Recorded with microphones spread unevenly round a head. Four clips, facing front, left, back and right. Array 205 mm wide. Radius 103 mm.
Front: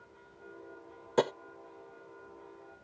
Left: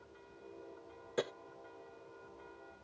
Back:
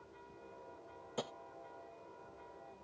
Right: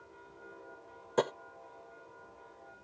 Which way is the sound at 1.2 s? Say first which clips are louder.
Right 7 dB, front 15 dB; 20° right.